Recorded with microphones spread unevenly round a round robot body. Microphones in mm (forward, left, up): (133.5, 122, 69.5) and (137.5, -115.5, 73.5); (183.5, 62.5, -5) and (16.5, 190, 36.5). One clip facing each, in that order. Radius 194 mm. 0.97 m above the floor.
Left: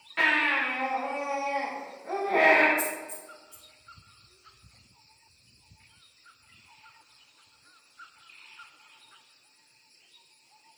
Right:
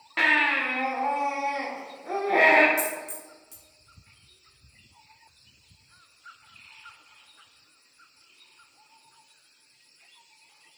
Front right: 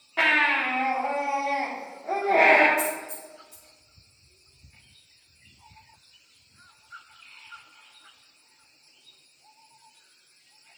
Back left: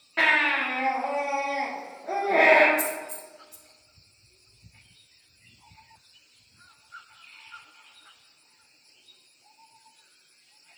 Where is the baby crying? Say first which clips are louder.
Right 2 dB, front right 1 dB; 135° right, 1.6 m.